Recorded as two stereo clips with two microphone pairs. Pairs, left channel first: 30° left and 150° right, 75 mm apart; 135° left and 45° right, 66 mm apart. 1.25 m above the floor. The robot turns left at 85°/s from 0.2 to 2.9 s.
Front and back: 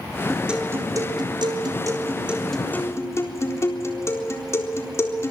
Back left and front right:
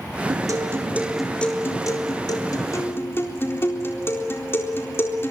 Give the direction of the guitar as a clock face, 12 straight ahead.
2 o'clock.